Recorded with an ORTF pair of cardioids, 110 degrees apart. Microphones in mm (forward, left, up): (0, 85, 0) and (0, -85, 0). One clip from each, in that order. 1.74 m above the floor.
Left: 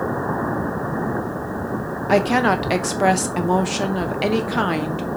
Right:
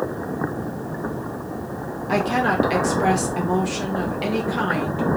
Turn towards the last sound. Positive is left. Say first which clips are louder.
# left 3 dB
turn(degrees=30)